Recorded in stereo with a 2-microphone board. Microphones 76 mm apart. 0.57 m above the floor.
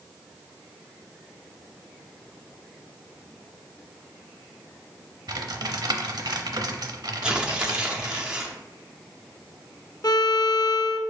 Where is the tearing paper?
10° right (ahead or behind), 0.6 m.